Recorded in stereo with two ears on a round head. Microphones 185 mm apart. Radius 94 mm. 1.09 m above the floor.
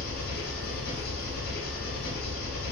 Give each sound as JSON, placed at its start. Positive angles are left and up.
{"t": 0.0, "sound": "an engine running", "side_deg": 50, "distance_m": 0.9}